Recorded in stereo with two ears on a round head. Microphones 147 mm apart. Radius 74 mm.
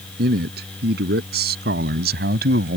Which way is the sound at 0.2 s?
70° right (ahead or behind).